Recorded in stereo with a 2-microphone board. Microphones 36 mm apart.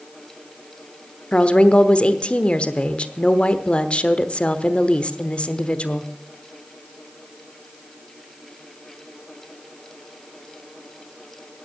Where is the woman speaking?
35° left (ahead or behind), 1.0 m.